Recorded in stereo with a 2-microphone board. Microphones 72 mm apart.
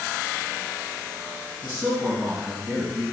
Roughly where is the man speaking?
Right.